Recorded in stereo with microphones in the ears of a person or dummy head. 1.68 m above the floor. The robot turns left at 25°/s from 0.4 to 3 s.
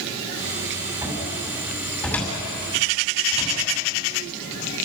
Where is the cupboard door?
20° right (ahead or behind), 6 m; by 3.6 s 30° left (ahead or behind), 6 m.